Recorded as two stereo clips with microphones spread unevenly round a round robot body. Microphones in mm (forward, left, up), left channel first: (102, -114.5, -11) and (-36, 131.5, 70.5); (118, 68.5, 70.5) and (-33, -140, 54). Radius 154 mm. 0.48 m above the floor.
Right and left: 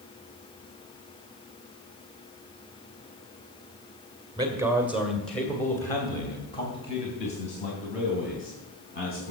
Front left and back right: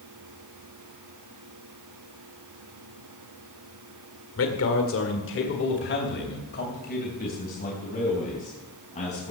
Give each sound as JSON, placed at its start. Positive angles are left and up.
{"t": 4.4, "sound": "a man speaking", "azimuth_deg": 35, "distance_m": 1.8}